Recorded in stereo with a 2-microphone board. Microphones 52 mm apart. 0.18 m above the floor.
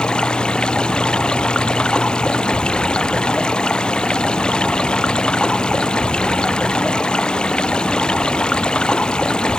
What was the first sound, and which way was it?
Running water, 15° left (ahead or behind).